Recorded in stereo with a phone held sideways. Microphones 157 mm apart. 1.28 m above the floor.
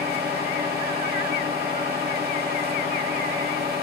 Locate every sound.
0.0 s a machine running: 75° right (ahead or behind), 1.6 m